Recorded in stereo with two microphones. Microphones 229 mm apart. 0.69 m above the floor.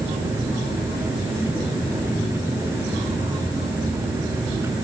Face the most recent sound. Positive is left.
No sound to turn to.